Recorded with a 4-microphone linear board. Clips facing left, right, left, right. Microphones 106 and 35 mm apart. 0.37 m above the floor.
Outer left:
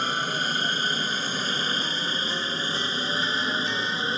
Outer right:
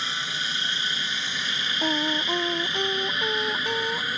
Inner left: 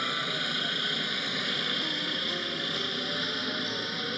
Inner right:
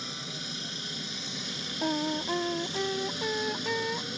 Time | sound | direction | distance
0.0 | a helicopter | 45° left (ahead or behind) | ?
1.8 | singing | 50° right (ahead or behind) | ?